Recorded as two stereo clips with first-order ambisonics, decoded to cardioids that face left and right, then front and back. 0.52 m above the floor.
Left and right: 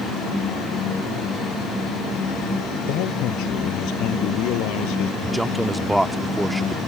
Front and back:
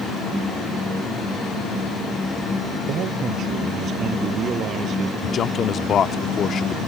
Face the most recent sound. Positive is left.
turn(degrees=-5)